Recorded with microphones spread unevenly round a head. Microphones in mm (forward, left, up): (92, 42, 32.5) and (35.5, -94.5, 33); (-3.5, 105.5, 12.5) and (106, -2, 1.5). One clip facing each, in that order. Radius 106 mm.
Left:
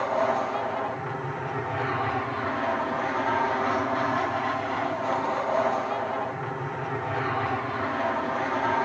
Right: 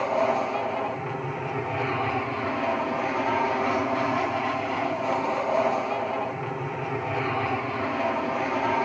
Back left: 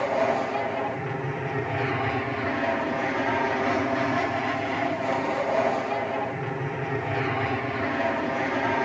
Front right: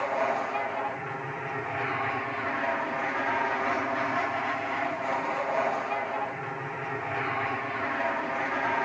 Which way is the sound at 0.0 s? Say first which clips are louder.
Right 1 dB, back left 4 dB; 175° left.